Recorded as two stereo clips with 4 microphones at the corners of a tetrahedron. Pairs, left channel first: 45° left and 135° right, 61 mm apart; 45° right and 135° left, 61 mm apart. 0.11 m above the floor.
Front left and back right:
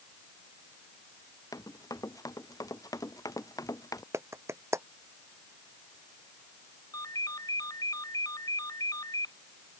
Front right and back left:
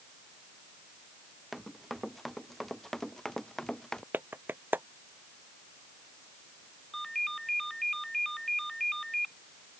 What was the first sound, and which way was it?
Running footsteps, 45° left.